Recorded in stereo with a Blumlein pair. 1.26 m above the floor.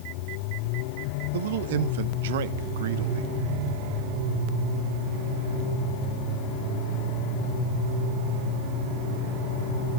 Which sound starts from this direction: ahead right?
A man speaking, at 1.3 s.